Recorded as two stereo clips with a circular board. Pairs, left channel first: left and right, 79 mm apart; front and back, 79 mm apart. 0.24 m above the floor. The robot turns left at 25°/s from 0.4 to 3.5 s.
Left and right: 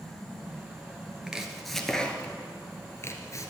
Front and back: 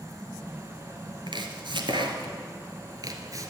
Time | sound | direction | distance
1.3 | chopping | 170° right | 1.2 m